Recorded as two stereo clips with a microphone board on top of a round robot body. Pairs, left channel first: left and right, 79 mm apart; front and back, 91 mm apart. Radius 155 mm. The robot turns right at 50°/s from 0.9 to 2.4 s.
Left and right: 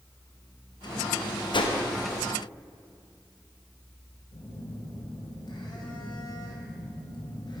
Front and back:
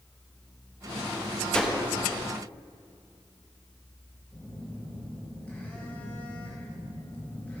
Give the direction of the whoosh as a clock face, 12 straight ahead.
9 o'clock.